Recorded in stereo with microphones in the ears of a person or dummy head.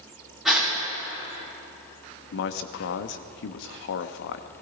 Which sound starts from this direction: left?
A man speaking, at 2.3 s.